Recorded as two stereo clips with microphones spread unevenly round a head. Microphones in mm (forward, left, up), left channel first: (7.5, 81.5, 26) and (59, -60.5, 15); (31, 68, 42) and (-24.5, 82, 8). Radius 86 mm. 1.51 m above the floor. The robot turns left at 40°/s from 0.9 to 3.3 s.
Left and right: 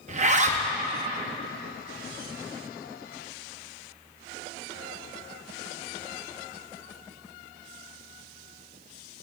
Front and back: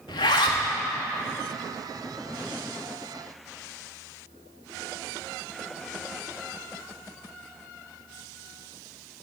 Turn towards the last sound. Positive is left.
turn(degrees=-125)